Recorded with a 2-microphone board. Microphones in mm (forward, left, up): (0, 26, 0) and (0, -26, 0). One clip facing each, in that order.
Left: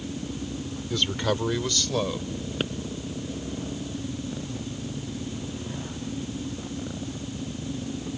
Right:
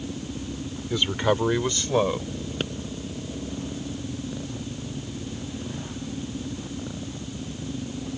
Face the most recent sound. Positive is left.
turn(degrees=5)  # may be behind; listen again after turning